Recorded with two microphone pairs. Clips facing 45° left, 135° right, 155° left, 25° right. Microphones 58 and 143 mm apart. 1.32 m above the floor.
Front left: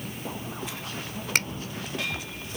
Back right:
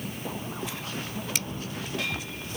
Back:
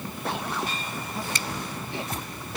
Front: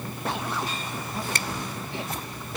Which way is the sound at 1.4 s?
5° left.